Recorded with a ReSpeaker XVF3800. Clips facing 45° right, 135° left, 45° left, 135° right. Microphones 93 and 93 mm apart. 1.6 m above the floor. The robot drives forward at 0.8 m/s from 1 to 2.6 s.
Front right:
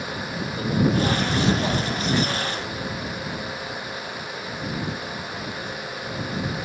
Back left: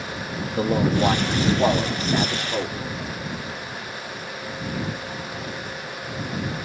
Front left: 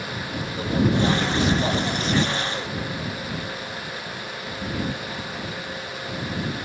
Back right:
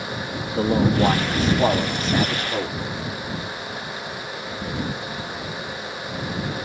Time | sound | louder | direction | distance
0.6 | a man speaking | back left 1 dB, back right 3 dB | 175° right | 2 m